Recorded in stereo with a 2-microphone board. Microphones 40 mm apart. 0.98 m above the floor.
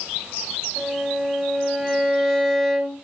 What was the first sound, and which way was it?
A violin, centre (ahead or behind).